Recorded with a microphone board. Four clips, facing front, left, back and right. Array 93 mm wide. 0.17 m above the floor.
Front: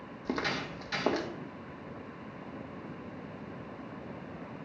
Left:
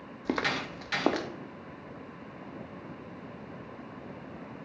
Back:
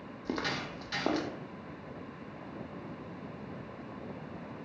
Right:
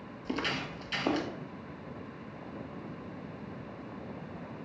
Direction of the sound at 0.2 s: 90° left.